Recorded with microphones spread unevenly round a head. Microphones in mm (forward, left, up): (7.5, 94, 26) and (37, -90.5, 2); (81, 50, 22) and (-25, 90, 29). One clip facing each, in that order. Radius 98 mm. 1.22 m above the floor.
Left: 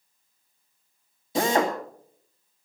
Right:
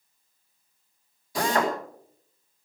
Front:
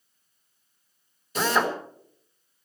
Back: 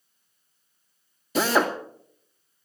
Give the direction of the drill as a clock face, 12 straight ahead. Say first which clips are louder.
Left 2 dB, back 2 dB; 6 o'clock.